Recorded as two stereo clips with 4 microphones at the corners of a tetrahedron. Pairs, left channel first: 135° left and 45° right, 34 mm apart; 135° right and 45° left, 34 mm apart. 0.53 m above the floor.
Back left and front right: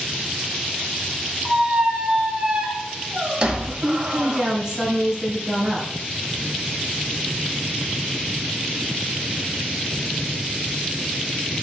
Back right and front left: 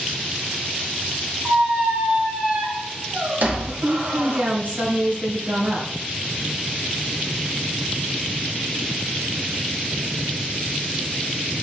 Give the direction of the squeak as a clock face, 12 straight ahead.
12 o'clock.